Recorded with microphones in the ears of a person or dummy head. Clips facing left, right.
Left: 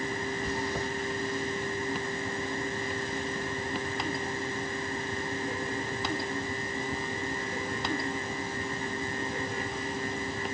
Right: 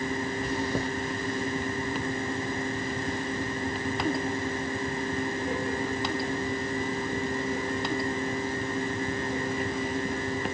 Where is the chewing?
55° right (ahead or behind), 1.2 m.